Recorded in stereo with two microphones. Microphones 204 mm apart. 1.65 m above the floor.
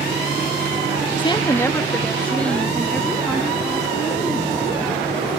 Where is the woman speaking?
25° left (ahead or behind); by 5.4 s centre (ahead or behind).